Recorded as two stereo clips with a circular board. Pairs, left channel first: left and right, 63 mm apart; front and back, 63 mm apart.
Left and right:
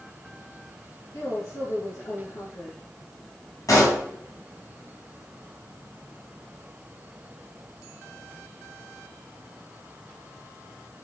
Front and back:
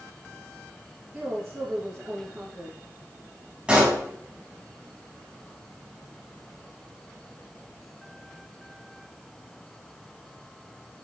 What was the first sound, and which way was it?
A woman speaking, 100° left.